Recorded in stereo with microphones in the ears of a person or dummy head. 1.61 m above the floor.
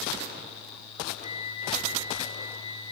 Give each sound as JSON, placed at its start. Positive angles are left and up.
{"t": 1.2, "sound": "a flute", "side_deg": 40, "distance_m": 4.0}